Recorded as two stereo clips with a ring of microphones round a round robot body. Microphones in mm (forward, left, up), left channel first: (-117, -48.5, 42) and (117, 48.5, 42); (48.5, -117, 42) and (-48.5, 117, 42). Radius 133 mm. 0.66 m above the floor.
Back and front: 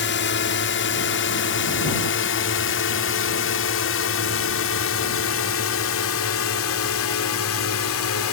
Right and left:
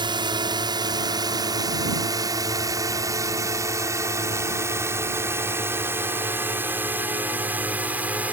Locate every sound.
0.0 s a drone: straight behind; by 8.3 s 165° right